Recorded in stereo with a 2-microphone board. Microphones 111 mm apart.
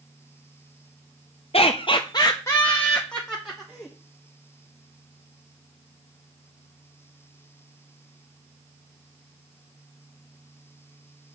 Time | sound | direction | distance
1.5 | laughter | 60° left (ahead or behind) | 0.6 m